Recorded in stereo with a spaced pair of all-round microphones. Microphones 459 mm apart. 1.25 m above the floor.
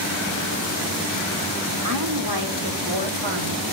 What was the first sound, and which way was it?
A woman speaking, 45° right (ahead or behind).